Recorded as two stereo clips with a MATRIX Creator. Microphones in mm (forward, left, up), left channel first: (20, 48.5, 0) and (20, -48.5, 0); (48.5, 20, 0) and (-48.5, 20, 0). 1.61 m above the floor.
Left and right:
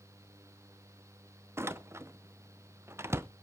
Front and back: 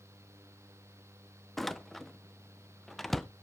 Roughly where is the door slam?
Right.